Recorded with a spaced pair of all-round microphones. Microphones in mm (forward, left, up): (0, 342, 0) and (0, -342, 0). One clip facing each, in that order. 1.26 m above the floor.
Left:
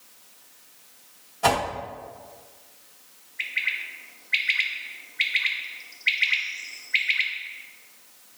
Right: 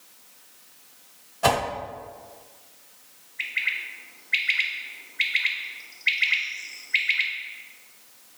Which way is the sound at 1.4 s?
5° right (ahead or behind).